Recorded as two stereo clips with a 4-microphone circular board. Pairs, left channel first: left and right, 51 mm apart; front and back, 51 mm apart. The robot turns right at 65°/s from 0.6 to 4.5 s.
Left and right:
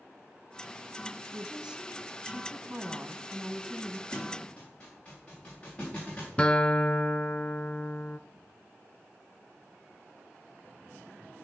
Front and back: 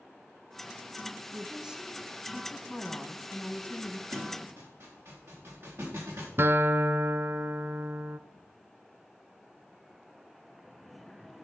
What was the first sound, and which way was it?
A woman speaking, 150° right.